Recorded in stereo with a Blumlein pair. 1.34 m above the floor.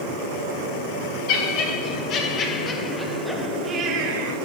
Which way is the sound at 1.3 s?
45° left.